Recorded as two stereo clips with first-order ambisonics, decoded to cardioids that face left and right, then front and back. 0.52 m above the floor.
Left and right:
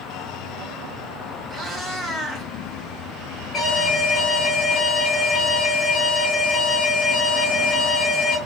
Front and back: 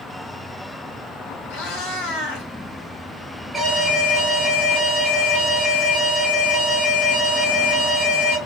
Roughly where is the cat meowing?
Ahead right.